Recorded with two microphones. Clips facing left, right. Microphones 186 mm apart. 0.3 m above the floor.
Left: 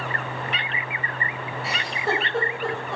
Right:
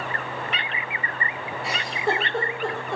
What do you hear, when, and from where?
1.6 s a giggle: centre (ahead or behind), 1.3 m